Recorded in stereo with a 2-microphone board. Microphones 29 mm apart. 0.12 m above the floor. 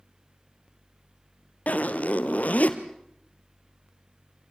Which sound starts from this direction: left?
A zipper, at 1.7 s.